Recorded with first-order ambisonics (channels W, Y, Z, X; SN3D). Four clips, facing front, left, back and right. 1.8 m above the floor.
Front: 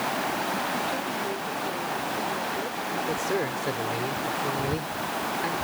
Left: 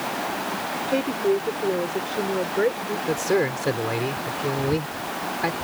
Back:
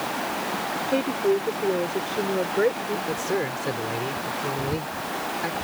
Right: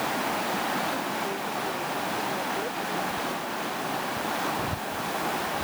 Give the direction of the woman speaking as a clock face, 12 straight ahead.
8 o'clock.